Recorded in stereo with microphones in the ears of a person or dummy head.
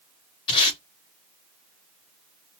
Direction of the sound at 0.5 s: 20° left (ahead or behind).